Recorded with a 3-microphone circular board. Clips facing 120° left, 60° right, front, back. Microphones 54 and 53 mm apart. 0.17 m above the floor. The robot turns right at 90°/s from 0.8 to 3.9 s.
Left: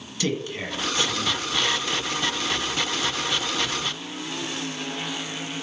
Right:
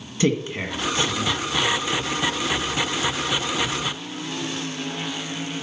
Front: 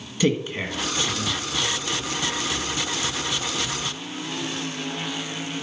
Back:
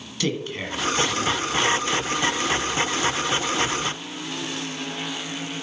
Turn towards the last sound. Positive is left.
turn(degrees=-140)